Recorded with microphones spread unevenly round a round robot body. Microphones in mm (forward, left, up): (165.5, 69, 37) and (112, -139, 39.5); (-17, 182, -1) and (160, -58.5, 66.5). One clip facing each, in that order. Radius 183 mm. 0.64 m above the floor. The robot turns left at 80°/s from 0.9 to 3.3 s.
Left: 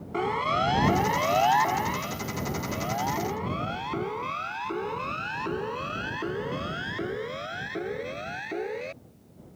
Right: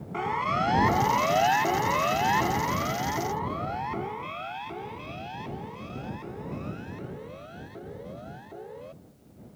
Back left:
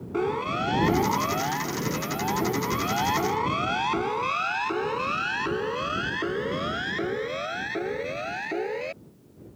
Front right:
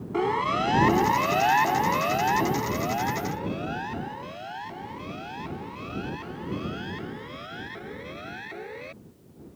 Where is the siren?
30° left; by 8.9 s 110° left.